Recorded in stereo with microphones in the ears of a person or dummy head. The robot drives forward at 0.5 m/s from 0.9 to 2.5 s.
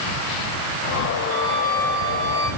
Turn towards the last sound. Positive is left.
turn(degrees=-85)